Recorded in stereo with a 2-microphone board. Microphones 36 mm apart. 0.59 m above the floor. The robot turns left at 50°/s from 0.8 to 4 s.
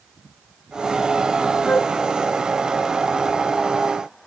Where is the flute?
55° left (ahead or behind); by 1.9 s 65° left (ahead or behind).